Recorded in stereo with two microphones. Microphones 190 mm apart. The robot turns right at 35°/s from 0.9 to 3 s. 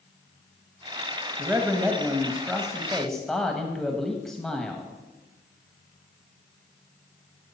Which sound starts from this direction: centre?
A man speaking, at 1.4 s.